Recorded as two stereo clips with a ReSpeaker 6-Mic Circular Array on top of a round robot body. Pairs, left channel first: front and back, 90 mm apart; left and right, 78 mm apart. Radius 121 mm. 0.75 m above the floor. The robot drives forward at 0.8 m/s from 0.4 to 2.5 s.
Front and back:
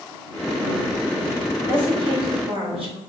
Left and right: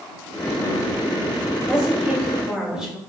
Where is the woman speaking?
170° right, 2.5 m.